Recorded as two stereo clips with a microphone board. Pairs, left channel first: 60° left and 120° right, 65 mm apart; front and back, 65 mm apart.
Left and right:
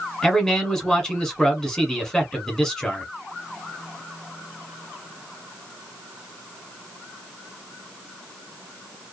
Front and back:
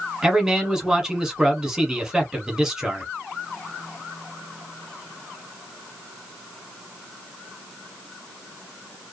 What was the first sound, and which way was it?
A man speaking, 120° left.